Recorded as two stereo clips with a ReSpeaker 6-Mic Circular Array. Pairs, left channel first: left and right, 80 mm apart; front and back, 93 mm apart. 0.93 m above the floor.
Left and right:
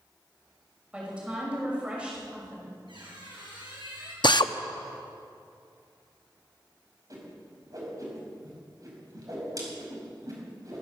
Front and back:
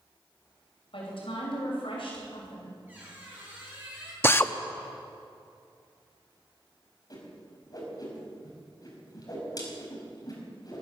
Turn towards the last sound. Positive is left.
turn(degrees=-45)